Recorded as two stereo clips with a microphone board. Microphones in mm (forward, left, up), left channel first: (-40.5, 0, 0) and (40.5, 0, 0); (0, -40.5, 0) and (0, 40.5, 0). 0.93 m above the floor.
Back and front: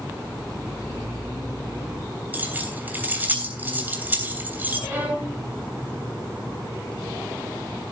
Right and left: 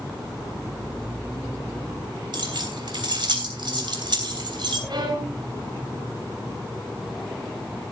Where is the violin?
65° left, 4 m.